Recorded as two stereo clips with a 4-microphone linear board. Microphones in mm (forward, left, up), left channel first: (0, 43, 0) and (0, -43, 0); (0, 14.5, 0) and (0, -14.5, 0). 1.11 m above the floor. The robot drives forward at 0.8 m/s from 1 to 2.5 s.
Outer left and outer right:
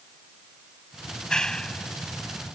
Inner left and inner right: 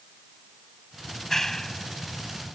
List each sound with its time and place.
1.1 s a clap: 10° left (ahead or behind)